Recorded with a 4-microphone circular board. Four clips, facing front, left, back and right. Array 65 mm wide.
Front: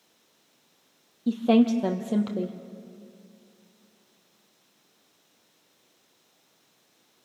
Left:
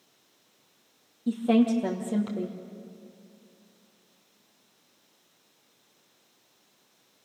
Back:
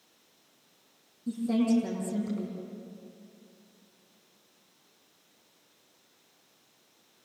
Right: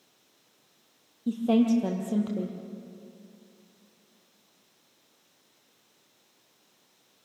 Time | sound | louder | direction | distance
1.3 | a woman speaking | left 1 dB, front 6 dB | 5° left | 2.5 m